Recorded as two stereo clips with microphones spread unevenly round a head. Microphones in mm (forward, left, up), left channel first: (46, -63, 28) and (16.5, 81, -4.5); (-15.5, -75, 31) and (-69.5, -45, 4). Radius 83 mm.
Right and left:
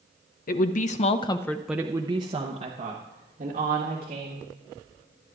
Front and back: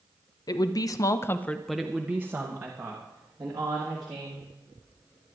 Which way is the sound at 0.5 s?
55° right.